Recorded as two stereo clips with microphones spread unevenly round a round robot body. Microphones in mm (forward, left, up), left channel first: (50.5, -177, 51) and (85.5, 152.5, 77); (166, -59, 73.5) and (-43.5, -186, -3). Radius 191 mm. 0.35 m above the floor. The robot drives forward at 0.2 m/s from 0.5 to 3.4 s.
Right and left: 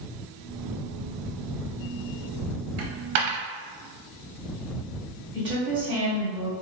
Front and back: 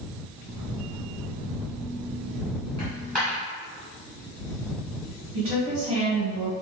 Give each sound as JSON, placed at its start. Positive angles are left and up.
{"t": 2.8, "sound": "a dropped coin", "azimuth_deg": 115, "distance_m": 0.6}
{"t": 5.3, "sound": "a woman speaking", "azimuth_deg": 160, "distance_m": 1.6}